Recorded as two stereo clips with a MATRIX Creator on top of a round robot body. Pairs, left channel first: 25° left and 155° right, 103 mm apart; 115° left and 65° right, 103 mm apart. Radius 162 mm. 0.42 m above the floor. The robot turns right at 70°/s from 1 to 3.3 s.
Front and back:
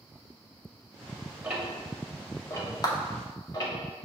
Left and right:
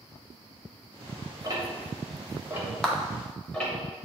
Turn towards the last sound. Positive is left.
turn(degrees=65)